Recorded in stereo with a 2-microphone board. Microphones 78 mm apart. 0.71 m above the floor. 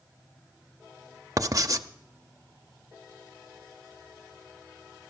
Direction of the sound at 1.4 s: 45° right (ahead or behind).